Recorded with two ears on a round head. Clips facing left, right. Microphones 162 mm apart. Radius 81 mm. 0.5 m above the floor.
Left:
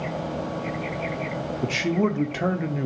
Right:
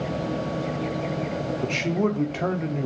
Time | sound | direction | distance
1.6 | a man speaking | 5° left (ahead or behind) | 0.9 m